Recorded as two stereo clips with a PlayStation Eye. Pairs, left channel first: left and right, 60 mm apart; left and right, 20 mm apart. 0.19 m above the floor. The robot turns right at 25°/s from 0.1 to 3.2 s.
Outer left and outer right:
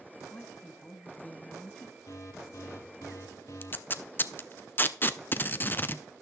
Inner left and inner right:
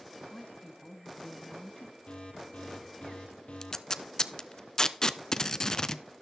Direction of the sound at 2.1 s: 75° left (ahead or behind).